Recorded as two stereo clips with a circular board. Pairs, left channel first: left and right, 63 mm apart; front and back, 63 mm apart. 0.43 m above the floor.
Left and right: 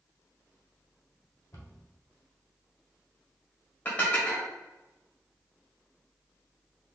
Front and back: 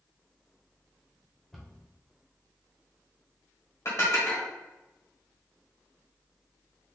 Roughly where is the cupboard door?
Left.